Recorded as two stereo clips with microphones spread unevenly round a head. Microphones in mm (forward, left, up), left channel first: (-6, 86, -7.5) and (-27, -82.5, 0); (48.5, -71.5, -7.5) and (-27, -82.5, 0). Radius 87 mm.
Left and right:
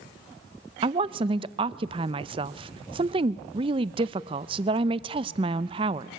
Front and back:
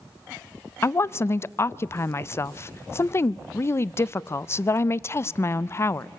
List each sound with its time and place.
0.8 s a woman speaking: 40° right, 0.5 m